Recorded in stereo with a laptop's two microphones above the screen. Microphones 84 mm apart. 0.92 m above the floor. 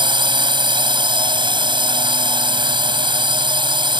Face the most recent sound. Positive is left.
turn(degrees=-70)  # may be behind; listen again after turning